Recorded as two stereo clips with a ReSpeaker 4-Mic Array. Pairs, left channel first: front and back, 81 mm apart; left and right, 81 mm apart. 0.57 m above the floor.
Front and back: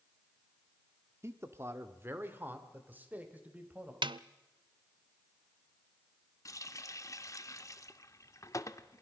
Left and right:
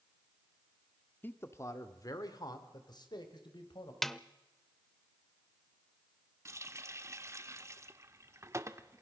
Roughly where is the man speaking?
Behind left.